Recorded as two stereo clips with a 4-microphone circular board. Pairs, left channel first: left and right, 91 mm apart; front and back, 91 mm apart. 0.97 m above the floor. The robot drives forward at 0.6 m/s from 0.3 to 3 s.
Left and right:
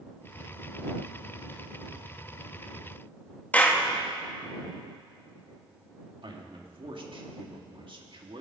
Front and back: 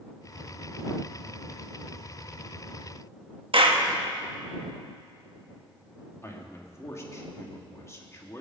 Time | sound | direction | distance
3.5 | a clap | 165° left | 1.1 m
6.2 | a man speaking | 60° right | 1.6 m